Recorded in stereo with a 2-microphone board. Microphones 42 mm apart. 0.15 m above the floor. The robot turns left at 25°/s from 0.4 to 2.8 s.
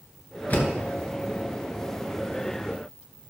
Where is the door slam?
40° left (ahead or behind), 2.0 m; by 0.7 s 45° left (ahead or behind), 2.0 m.